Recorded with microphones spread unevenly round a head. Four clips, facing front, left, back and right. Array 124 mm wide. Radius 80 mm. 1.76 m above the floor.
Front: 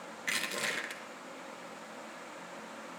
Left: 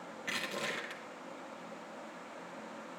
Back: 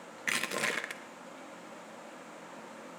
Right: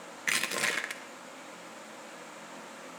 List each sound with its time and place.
0.3 s crushing: 130° right, 0.7 m